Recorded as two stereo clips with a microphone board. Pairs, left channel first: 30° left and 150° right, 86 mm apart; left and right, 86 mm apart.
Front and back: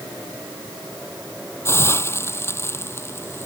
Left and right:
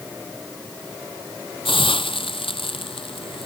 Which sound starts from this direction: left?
A hiss, at 1.6 s.